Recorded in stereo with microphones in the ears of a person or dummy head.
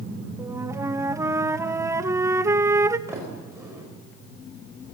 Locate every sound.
0.4 s a flute: 15° right (ahead or behind), 0.8 m
3.1 s a sliding door: 10° right (ahead or behind), 5 m